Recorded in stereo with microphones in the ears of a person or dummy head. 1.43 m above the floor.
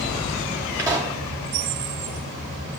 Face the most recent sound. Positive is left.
turn(degrees=-15)  # may be behind; listen again after turning